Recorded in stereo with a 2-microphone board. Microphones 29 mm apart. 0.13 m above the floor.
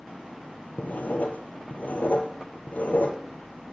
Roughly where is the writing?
Left.